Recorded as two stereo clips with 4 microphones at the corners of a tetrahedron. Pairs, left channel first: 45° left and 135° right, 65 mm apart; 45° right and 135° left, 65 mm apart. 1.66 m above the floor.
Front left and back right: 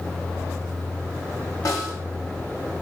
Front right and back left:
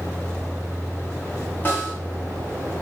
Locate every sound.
1.6 s a snare drum: 10° left, 1.2 m